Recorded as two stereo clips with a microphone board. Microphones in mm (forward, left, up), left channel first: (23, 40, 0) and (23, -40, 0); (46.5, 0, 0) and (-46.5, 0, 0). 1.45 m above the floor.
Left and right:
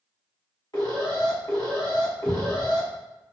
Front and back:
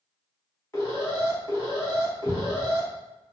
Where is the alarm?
60° left, 1.4 m.